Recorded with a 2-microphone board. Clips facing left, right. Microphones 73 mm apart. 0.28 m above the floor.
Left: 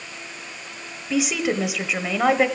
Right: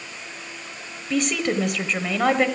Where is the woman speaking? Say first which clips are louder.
Even; 5° left (ahead or behind), 1.0 m.